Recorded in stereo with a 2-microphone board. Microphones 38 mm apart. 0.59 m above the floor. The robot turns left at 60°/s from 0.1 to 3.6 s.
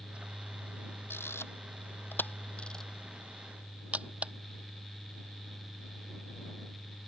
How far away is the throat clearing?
I don't hear throat clearing.